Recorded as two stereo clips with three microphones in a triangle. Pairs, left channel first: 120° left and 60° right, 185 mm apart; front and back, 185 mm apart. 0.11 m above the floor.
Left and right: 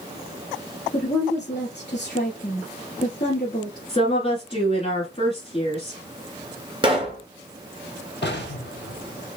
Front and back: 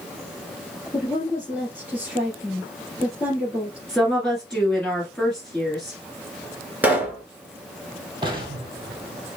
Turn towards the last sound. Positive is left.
turn(degrees=120)